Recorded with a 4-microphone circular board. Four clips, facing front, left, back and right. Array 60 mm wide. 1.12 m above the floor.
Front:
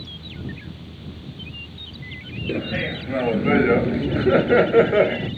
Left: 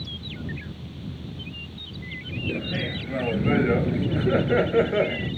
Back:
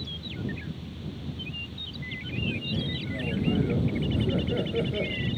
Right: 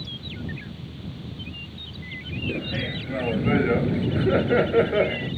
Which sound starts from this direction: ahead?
Laughter, at 2.5 s.